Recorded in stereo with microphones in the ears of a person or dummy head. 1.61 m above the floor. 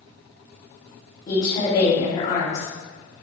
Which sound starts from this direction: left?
A woman speaking, at 1.3 s.